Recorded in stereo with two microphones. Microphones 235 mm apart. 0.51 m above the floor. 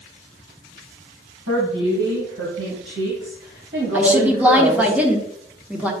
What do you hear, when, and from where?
1.5 s a woman speaking: 75° right (ahead or behind), 3 m; by 4.9 s 40° right (ahead or behind), 2 m
3.9 s a woman speaking: 5° right (ahead or behind), 1.2 m